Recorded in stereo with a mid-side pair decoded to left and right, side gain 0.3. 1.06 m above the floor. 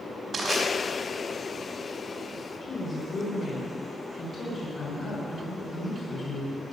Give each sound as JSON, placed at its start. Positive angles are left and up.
{"t": 0.3, "sound": "crushing", "azimuth_deg": -60, "distance_m": 4.5}
{"t": 2.6, "sound": "a woman speaking", "azimuth_deg": 50, "distance_m": 4.5}